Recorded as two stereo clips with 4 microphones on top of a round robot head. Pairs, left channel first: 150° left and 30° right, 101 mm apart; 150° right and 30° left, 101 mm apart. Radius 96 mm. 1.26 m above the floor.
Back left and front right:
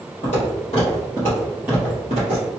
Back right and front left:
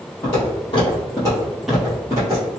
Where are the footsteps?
175° left, 1.8 m; by 2.5 s 20° right, 1.5 m.